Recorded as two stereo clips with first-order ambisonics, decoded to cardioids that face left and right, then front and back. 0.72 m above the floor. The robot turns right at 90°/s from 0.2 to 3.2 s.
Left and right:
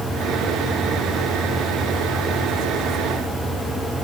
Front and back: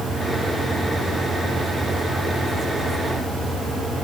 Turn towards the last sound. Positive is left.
No sound to turn to.